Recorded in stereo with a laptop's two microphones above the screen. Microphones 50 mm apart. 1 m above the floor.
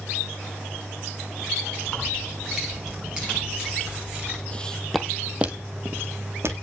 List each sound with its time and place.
1.8 s keys jangling: 10° right (ahead or behind), 6.5 m; by 4.4 s 20° right (ahead or behind), 8 m
4.5 s footsteps: 25° left (ahead or behind), 1.6 m; by 6.5 s 55° right (ahead or behind), 2.5 m